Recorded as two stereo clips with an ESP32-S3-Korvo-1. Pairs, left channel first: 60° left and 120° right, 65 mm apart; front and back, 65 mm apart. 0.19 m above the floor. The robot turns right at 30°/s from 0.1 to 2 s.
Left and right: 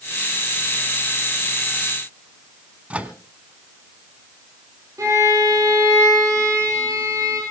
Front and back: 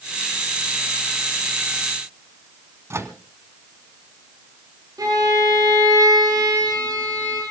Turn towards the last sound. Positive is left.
turn(degrees=-155)